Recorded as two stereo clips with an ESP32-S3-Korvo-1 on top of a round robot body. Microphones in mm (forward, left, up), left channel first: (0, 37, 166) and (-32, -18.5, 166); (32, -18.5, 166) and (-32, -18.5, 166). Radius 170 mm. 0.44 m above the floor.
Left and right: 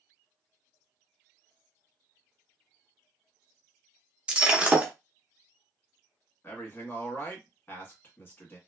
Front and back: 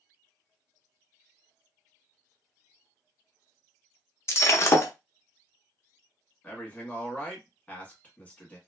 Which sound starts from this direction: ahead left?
A man speaking, at 6.4 s.